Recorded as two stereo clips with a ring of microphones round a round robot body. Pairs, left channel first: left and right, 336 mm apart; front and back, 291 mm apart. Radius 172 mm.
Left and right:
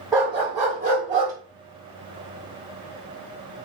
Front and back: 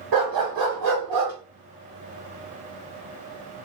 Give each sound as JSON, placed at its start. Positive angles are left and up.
{"t": 0.1, "sound": "a dog barking", "azimuth_deg": -170, "distance_m": 1.2}